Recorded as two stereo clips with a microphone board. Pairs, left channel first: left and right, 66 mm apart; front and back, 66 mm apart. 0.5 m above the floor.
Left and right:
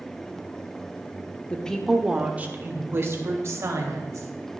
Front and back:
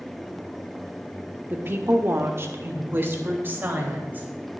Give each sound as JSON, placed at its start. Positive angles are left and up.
{"t": 1.5, "sound": "a woman speaking", "azimuth_deg": 150, "distance_m": 1.0}